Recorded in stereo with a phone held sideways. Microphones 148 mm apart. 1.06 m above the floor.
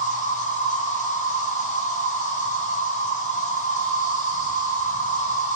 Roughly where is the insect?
Left.